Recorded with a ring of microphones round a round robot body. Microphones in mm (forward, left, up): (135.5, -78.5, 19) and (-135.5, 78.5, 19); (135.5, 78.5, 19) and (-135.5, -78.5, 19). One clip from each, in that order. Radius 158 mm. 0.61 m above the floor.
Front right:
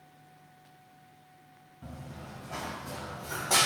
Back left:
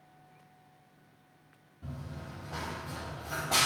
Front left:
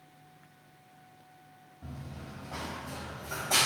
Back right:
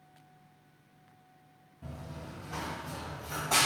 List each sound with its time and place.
1.8 s running footsteps: 85° right, 1.6 m; by 3.7 s 45° right, 1.0 m